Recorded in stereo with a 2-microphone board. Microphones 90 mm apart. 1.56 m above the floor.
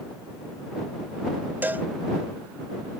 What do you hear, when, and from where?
1.6 s a cowbell: 20° right (ahead or behind)